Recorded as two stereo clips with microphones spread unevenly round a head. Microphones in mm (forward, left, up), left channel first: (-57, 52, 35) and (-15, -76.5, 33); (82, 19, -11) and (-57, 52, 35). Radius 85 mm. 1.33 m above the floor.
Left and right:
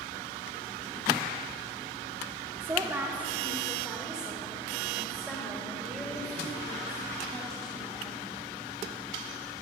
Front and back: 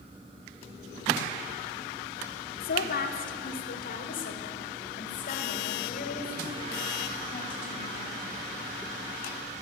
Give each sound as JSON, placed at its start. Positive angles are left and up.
{"t": 2.6, "sound": "a woman speaking", "azimuth_deg": 5, "distance_m": 2.5}